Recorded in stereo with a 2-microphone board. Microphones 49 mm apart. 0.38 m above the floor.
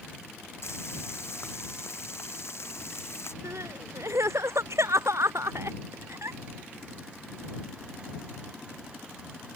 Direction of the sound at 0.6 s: 60° left (ahead or behind).